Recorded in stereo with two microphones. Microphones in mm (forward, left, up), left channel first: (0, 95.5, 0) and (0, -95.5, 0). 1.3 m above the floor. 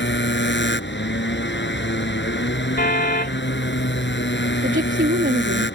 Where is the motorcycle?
70° left (ahead or behind).